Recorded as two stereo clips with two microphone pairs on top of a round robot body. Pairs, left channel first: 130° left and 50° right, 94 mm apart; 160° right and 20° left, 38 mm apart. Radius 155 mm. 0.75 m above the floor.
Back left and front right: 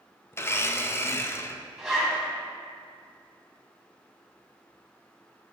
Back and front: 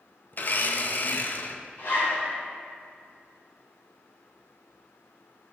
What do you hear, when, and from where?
0.3 s a blender: 170° right, 0.7 m
1.8 s a zipper: 130° right, 3 m